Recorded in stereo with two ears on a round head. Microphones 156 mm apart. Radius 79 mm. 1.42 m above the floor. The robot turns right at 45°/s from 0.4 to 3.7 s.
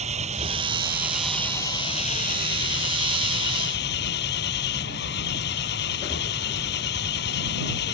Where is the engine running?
40° right; by 8.0 s 110° left.